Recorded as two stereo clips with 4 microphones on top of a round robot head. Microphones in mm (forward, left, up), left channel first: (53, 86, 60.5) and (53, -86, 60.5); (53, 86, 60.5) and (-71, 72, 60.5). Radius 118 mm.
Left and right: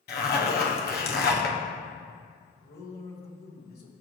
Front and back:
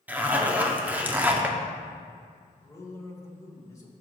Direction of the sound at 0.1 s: 110° left.